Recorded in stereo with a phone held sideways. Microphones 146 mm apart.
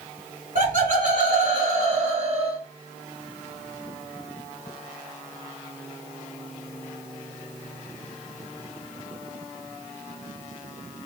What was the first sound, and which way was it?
Laughter, 65° right (ahead or behind).